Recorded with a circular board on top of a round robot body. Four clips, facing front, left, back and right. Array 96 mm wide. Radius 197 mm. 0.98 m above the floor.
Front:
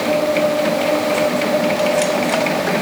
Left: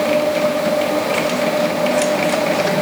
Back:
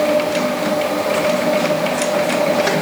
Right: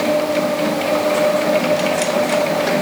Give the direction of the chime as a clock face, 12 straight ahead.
No chime in this recording.